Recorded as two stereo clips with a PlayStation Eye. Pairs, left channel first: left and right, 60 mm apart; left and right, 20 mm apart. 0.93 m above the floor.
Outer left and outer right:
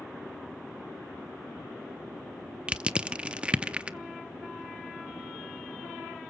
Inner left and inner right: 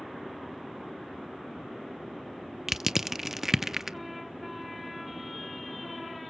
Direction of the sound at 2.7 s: 20° right (ahead or behind).